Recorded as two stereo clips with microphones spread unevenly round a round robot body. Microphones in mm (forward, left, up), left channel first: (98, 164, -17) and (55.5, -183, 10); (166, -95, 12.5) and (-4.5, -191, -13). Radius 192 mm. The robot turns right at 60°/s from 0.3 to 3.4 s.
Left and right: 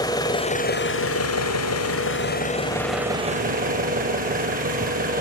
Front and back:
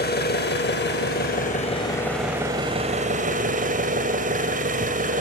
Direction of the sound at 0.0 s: 10° left.